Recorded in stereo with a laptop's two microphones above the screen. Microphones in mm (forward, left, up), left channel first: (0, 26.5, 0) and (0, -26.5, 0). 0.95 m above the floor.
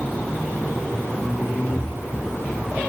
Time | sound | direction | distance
1.7 | breathing | 80° left | 3 m